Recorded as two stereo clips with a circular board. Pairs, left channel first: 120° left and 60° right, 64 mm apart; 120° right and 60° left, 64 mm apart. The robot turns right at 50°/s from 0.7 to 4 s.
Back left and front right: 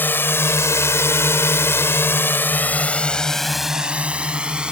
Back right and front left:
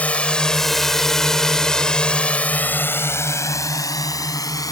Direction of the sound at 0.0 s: 175° left.